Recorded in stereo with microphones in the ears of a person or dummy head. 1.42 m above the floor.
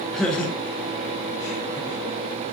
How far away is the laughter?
About 1.8 m.